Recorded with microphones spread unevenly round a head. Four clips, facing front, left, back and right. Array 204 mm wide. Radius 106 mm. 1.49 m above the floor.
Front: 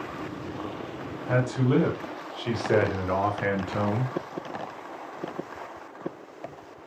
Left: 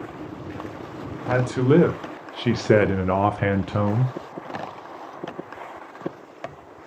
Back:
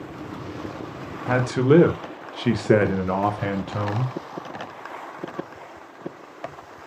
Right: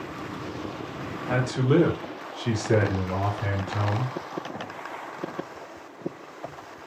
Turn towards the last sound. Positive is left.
turn(degrees=70)